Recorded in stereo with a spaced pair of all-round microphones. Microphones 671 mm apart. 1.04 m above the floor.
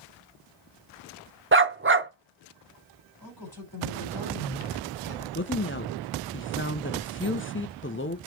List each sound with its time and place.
1.5 s a dog barking: 20° right (ahead or behind), 0.6 m
3.2 s a man speaking: 30° left (ahead or behind), 5 m
5.3 s a woman speaking: 20° left (ahead or behind), 0.8 m